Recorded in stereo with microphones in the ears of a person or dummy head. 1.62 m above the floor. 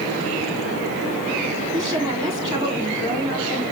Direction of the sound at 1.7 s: 25° right (ahead or behind).